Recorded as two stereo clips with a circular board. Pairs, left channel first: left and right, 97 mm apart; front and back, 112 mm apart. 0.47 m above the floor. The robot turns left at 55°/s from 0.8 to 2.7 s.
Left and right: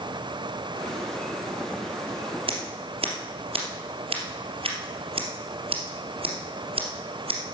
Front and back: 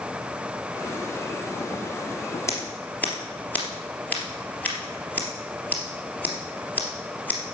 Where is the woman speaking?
No woman speaking in this recording.